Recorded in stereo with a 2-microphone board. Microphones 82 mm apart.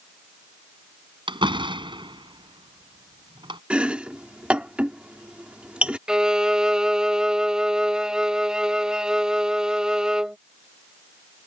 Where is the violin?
10° right (ahead or behind).